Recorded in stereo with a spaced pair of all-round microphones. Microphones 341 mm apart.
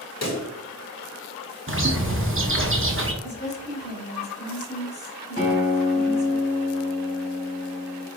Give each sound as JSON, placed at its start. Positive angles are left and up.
{"t": 0.2, "sound": "a pop", "side_deg": 50, "distance_m": 1.0}
{"t": 1.7, "sound": "a bird", "side_deg": -40, "distance_m": 0.6}
{"t": 3.2, "sound": "a woman speaking", "side_deg": 45, "distance_m": 1.7}
{"t": 5.4, "sound": "a guitar", "side_deg": 30, "distance_m": 2.0}